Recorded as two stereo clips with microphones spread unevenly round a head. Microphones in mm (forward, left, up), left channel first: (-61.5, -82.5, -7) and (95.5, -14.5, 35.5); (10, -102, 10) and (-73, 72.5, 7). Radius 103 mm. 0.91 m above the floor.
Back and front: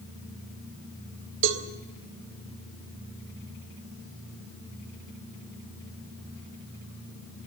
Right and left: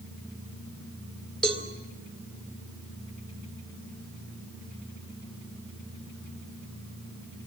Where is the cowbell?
20° left, 2 m.